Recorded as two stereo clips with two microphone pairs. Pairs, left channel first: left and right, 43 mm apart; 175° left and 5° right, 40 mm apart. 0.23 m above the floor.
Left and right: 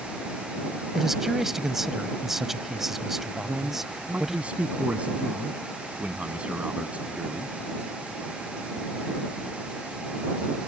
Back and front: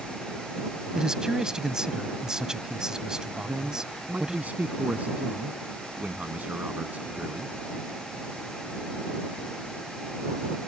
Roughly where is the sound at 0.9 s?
Ahead right.